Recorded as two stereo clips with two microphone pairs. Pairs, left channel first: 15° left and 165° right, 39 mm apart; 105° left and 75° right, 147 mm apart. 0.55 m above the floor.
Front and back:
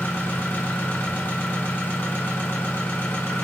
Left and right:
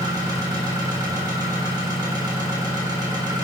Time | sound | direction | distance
0.0 | an engine running | 15° right | 1.2 m